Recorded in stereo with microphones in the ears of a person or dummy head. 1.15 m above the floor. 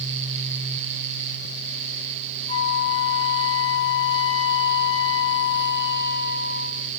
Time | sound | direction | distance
2.5 | a flute | 25° left (ahead or behind) | 3.5 m